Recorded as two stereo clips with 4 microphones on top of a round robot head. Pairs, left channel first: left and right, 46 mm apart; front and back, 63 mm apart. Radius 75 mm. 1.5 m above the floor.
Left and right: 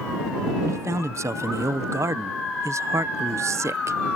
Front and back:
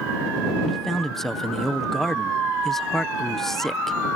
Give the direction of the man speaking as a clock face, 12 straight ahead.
3 o'clock.